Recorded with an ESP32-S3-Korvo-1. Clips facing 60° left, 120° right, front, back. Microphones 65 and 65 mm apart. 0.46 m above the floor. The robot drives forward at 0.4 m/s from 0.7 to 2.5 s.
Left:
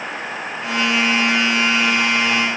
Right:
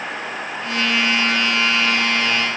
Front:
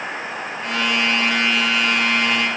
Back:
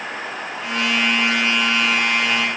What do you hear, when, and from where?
Only background noise.